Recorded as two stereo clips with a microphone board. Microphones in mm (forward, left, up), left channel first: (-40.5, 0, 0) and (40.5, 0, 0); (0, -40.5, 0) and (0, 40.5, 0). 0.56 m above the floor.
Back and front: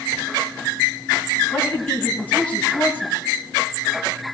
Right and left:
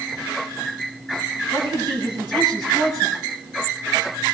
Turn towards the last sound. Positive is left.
turn(degrees=120)